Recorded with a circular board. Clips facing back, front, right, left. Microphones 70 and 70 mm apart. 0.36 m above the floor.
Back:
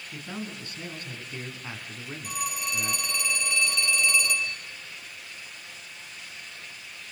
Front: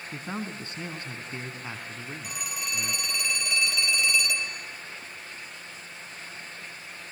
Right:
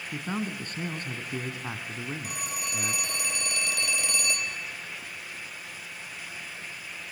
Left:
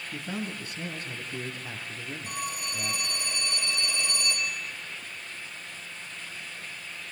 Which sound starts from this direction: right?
A phone ringing, at 2.2 s.